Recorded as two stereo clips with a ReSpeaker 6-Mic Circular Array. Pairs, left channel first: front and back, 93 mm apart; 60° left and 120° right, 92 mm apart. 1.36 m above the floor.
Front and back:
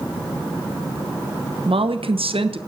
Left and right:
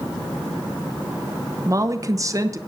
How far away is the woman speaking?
About 0.9 m.